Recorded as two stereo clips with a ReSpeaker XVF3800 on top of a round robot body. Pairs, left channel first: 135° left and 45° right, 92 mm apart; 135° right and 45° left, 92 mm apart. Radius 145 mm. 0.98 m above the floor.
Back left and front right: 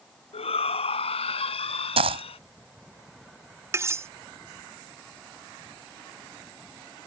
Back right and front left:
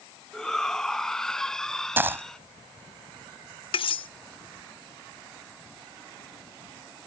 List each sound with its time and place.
0.3 s a shout: 140° left
2.0 s a dropped coin: 25° right
3.7 s cutlery clinking: 110° right